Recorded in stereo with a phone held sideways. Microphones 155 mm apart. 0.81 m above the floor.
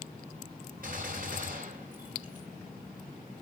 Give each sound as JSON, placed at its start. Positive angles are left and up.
{"t": 0.8, "sound": "a gunshot", "side_deg": -65, "distance_m": 5.5}